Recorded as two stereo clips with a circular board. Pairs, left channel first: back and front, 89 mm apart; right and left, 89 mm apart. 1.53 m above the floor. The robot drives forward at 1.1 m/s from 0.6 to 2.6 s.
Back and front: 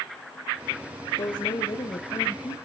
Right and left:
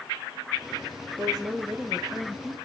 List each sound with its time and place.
1.2 s a woman speaking: 165° left, 1.1 m; by 2.5 s 175° left, 2.5 m